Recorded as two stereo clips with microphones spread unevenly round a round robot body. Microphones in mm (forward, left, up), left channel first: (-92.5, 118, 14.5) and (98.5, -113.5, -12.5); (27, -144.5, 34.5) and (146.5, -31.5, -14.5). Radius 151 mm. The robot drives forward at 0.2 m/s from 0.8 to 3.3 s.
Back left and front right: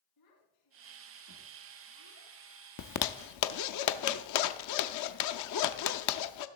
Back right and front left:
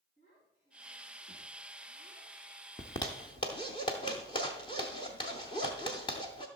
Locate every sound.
0.2 s a child speaking: 155° left, 4 m
2.8 s a zipper: 140° left, 0.6 m; by 6.5 s 145° left, 0.6 m